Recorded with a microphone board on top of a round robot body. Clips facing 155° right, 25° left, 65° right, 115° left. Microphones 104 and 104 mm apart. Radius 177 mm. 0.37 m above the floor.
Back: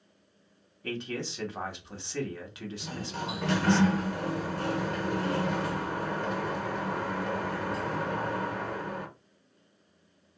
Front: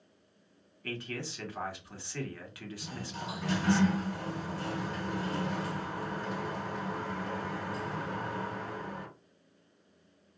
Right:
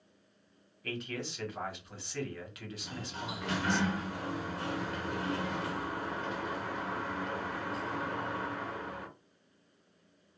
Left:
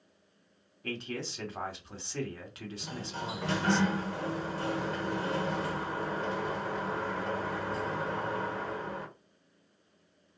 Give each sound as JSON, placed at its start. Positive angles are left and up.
{"t": 0.8, "sound": "a man speaking", "azimuth_deg": 150, "distance_m": 1.7}
{"t": 2.8, "sound": "a sliding door", "azimuth_deg": 170, "distance_m": 1.1}